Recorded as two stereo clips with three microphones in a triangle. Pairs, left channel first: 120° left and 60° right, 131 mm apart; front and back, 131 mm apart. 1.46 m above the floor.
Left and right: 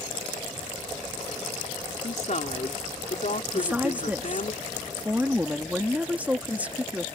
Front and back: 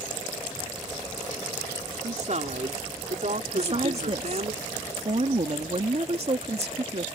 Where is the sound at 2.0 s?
150° left.